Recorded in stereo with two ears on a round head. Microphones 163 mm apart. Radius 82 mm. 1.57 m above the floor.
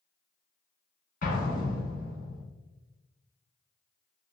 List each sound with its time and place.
1.2 s an explosion: 45° left (ahead or behind), 1.2 m